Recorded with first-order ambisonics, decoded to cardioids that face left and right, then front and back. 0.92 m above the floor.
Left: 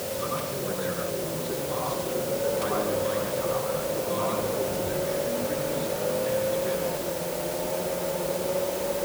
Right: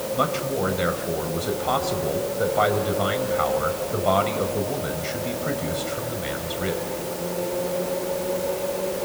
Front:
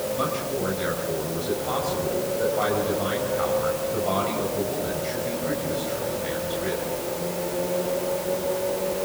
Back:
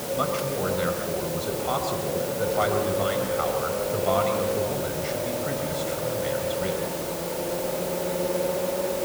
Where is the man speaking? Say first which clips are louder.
Right 9 dB, even; 100° right, 5 m.